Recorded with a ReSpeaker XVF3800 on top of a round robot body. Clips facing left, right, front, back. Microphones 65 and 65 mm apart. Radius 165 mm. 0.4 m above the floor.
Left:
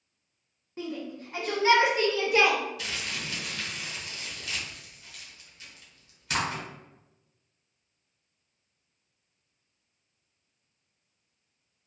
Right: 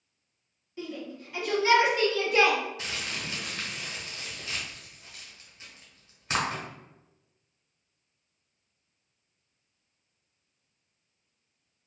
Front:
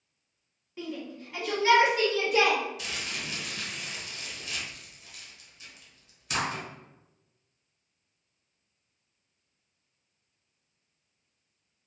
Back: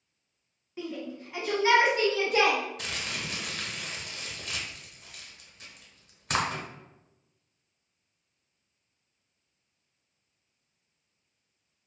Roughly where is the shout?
Left.